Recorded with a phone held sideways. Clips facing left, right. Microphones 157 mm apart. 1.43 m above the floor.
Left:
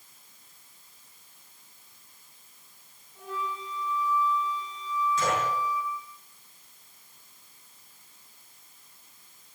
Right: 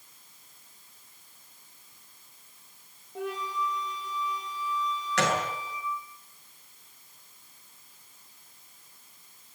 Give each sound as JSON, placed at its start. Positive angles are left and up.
{"t": 3.1, "sound": "a flute", "side_deg": -80, "distance_m": 6.5}
{"t": 5.2, "sound": "a gunshot", "side_deg": -80, "distance_m": 7.5}